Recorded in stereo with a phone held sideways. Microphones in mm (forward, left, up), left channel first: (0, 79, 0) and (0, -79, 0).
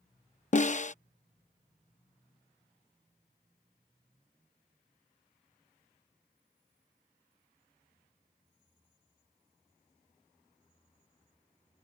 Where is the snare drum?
45° left (ahead or behind).